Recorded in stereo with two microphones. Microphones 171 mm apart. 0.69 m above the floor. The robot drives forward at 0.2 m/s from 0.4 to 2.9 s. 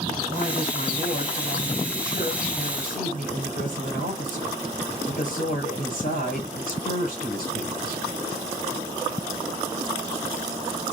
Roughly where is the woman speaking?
Left.